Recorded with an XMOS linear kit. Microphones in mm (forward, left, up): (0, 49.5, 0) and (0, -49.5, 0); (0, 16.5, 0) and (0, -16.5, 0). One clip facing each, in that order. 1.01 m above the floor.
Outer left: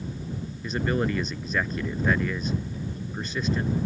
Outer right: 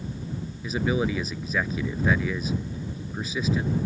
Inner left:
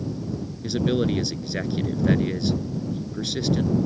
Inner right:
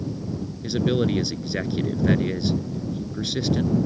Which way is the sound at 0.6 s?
5° right (ahead or behind).